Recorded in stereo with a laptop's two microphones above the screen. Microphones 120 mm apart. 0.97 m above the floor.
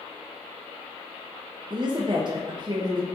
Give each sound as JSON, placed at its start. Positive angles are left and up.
{"t": 1.7, "sound": "a woman speaking", "side_deg": -40, "distance_m": 0.5}